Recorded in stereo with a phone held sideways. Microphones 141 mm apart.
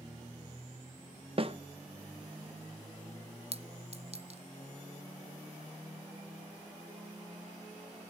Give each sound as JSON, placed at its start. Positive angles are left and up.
{"t": 1.4, "sound": "a snare drum", "side_deg": -40, "distance_m": 0.8}
{"t": 3.5, "sound": "a clink", "side_deg": -45, "distance_m": 0.6}